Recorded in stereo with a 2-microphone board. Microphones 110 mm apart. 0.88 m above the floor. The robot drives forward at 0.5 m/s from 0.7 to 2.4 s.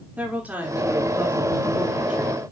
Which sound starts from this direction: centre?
A woman speaking, at 0.2 s.